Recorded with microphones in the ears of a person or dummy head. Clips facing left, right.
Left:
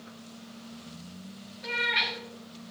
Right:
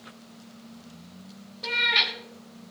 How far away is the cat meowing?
About 1.8 m.